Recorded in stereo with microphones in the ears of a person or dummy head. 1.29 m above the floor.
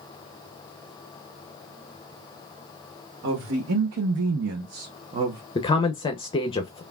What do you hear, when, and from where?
3.2 s a woman speaking: 65° right (ahead or behind), 1.2 m; by 5.4 s 15° right (ahead or behind), 0.9 m
5.5 s a man speaking: 20° left (ahead or behind), 0.6 m